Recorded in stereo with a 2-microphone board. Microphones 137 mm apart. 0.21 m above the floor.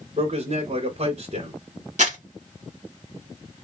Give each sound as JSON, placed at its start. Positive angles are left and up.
{"t": 0.2, "sound": "a man speaking", "side_deg": -55, "distance_m": 2.5}
{"t": 2.0, "sound": "crumpling", "side_deg": -60, "distance_m": 2.0}